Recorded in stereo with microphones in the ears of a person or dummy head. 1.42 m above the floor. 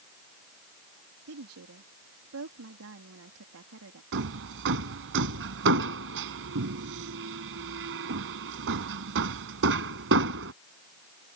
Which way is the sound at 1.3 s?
85° right.